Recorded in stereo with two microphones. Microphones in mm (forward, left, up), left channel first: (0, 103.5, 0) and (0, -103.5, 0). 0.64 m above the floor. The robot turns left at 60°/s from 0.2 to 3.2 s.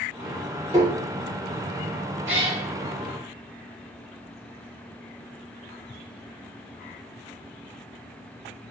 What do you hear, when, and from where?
0.7 s tapping: 20° right (ahead or behind), 1.2 m; by 0.9 s 30° right (ahead or behind), 1.2 m
2.3 s a cat meowing: 70° right (ahead or behind), 0.8 m; by 2.6 s 55° right (ahead or behind), 0.8 m